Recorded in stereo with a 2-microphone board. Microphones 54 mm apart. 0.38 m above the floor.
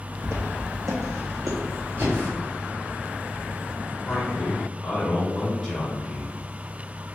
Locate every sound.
0.2 s footsteps: 60° right (ahead or behind), 0.8 m; by 2.1 s 75° right (ahead or behind), 1.7 m
2.0 s breathing: 40° right (ahead or behind), 1.4 m
4.1 s a man speaking: 5° left (ahead or behind), 1.1 m